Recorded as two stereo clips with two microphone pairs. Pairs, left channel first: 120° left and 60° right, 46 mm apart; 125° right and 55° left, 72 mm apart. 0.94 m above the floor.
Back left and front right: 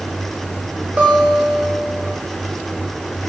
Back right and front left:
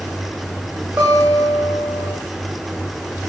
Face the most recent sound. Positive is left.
turn(degrees=0)